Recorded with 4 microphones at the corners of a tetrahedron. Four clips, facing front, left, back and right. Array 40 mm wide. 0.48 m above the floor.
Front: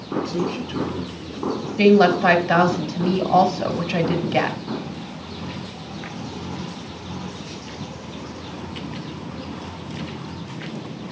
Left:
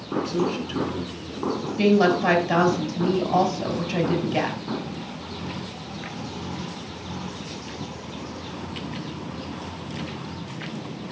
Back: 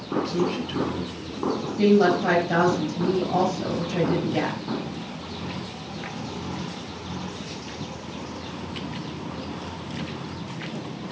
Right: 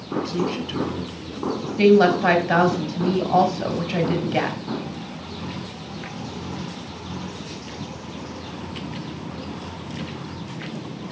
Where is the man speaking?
115° right, 3.5 m; by 1.6 s 85° right, 4 m.